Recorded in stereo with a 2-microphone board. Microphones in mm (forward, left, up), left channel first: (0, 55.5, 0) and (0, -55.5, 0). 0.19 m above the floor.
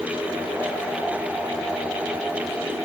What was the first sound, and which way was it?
Only background noise.